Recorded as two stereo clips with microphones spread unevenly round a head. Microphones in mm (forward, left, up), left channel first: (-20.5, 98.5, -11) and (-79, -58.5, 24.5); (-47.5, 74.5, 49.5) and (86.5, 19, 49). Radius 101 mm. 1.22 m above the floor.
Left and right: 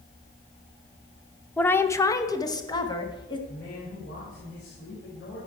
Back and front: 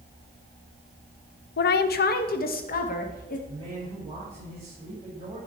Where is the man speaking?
30° left, 5.5 m.